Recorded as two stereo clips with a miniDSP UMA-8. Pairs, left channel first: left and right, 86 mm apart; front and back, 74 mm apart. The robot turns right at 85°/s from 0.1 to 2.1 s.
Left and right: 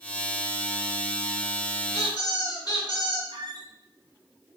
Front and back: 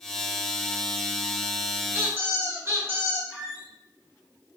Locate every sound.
1.9 s a squeak: 115° left, 1.2 m; by 3.2 s 130° left, 1.2 m
3.3 s a squeak: 100° right, 2 m